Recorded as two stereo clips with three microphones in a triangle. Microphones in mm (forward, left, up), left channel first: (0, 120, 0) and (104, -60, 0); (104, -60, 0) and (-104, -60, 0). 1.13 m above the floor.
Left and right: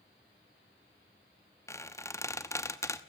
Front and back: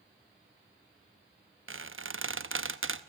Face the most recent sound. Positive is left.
turn(degrees=-165)